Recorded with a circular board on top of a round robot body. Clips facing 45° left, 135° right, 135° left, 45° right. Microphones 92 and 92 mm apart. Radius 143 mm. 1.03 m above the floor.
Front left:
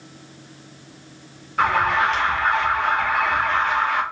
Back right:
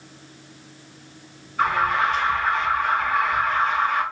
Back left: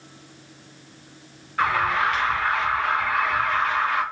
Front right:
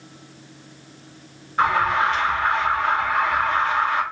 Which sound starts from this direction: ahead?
An alarm, at 1.6 s.